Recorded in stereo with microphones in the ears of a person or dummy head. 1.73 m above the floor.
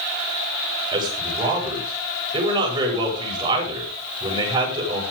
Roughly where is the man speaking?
Right.